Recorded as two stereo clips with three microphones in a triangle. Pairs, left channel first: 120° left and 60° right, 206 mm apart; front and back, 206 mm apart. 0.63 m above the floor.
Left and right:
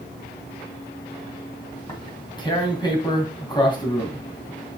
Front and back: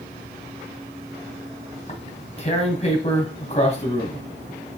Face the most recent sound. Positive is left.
turn(degrees=55)